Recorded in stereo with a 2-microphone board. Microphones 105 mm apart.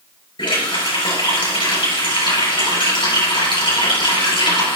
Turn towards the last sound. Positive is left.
turn(degrees=55)  # may be behind; listen again after turning